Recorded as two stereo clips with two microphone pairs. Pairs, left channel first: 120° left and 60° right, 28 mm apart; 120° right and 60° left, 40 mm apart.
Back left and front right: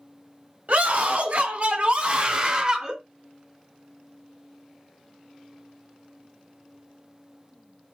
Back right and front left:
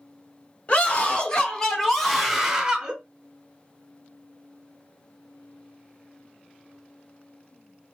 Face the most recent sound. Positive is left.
turn(degrees=0)